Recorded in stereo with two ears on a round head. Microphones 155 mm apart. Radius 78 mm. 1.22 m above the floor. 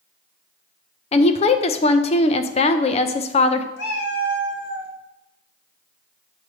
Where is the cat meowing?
60° left (ahead or behind), 1.6 m.